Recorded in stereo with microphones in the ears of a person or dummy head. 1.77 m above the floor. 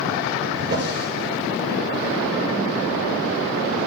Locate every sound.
0.6 s a drawer: 60° right (ahead or behind), 7.5 m